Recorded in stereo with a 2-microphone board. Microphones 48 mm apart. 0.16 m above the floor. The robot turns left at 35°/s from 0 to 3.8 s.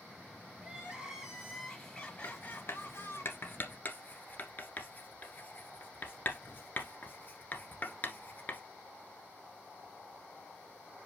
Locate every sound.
0.6 s crying: 150° right, 3 m; by 3.2 s 120° left, 3 m
2.2 s writing: 60° left (ahead or behind), 1.4 m; by 8.6 s 35° left (ahead or behind), 1.4 m